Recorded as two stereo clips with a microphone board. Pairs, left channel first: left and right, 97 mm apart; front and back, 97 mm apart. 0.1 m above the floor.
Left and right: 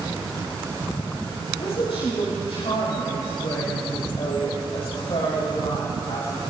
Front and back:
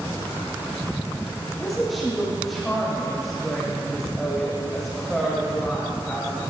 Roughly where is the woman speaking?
Left.